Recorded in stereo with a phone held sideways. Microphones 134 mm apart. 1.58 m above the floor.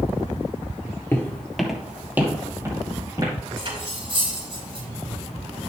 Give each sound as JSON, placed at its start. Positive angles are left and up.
{"t": 1.1, "sound": "footsteps", "side_deg": 20, "distance_m": 1.7}
{"t": 3.6, "sound": "cutlery clinking", "side_deg": -40, "distance_m": 5.0}